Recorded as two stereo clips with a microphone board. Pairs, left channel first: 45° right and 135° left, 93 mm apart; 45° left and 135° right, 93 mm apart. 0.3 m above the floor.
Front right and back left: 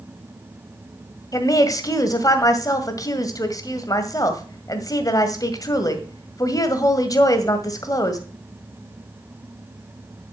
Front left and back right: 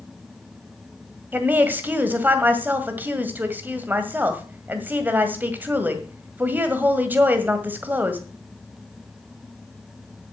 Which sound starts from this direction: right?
A woman speaking, at 1.3 s.